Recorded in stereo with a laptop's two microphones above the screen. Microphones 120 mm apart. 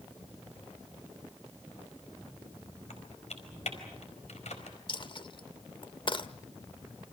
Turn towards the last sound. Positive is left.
turn(degrees=45)  # may be behind; listen again after turning